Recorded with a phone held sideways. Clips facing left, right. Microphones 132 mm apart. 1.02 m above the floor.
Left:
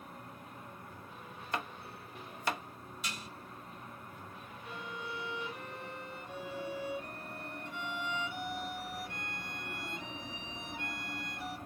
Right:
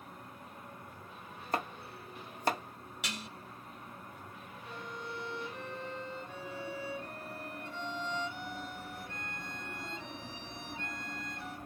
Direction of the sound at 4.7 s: 15° left (ahead or behind).